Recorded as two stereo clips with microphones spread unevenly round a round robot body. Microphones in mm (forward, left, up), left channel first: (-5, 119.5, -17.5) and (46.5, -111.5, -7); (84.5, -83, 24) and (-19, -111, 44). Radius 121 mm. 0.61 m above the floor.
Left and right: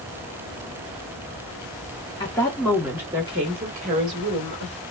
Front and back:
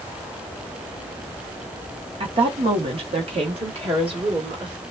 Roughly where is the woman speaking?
Behind.